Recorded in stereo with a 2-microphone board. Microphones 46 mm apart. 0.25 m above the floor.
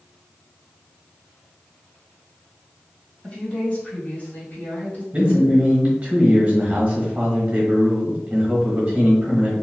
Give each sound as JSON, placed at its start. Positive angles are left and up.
{"t": 3.2, "sound": "a woman speaking", "side_deg": 25, "distance_m": 1.3}
{"t": 5.1, "sound": "a man speaking", "side_deg": -30, "distance_m": 1.2}